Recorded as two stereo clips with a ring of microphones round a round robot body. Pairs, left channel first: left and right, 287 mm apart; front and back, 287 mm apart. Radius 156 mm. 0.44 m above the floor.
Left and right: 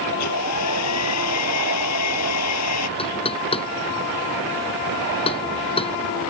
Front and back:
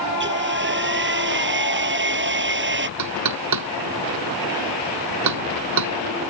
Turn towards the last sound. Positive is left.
turn(degrees=165)